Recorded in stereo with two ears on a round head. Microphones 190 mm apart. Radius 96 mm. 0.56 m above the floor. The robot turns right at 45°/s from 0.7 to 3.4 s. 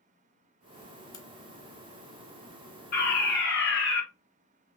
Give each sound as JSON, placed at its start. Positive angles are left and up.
{"t": 1.1, "sound": "a crack", "side_deg": 20, "distance_m": 1.1}
{"t": 2.9, "sound": "a fire alarm", "side_deg": 40, "distance_m": 3.0}